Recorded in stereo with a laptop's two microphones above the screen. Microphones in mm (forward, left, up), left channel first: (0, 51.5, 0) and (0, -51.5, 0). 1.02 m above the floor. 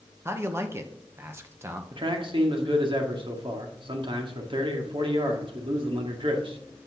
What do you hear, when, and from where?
0.2 s a man speaking: 25° right (ahead or behind), 0.9 m
1.9 s a man speaking: 55° right (ahead or behind), 1.8 m